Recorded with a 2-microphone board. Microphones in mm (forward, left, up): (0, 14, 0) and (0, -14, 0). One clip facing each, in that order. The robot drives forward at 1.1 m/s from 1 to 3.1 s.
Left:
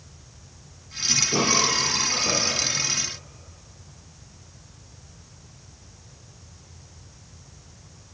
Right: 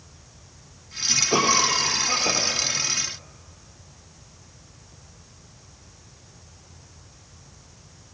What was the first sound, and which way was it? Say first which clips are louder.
A cough: right 3 dB; 55° right (ahead or behind).